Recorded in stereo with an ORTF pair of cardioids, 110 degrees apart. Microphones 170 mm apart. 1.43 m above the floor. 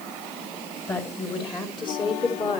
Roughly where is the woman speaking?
Ahead.